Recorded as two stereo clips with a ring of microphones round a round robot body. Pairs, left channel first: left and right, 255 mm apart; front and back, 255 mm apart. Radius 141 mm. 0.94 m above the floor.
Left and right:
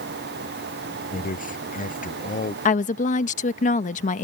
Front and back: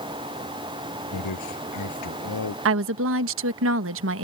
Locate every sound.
1.1 s a man speaking: 30° left
2.6 s a woman speaking: 150° left